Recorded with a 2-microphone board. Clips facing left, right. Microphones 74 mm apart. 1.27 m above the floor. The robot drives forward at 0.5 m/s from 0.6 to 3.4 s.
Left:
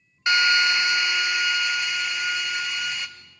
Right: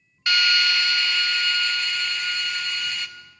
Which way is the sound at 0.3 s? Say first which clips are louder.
Left 2 dB; 20° left (ahead or behind).